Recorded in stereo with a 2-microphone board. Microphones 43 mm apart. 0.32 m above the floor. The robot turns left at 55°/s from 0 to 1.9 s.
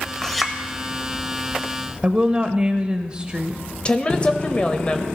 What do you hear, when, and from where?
0.2 s a clink: 10° left (ahead or behind), 0.9 m; by 0.6 s 5° right (ahead or behind), 0.9 m
2.0 s a woman speaking: 20° right (ahead or behind), 0.9 m
3.9 s a woman speaking: 25° left (ahead or behind), 1.0 m